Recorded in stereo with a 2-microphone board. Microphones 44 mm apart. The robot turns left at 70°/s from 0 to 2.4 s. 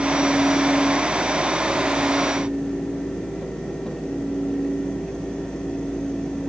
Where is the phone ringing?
I don't hear a phone ringing.